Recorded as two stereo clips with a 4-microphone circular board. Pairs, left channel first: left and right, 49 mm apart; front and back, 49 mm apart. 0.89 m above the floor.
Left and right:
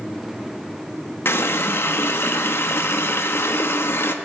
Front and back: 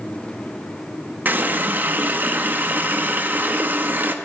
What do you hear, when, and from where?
1.2 s a running tap: 130° left, 0.6 m